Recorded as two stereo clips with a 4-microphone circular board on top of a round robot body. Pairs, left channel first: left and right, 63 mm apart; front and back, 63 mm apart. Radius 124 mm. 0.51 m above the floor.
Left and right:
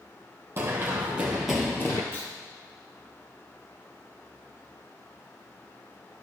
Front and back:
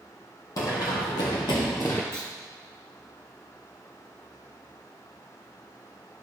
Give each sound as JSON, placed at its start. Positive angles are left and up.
{"t": 0.6, "sound": "running footsteps", "azimuth_deg": -30, "distance_m": 1.0}
{"t": 2.1, "sound": "a clunk", "azimuth_deg": 135, "distance_m": 3.0}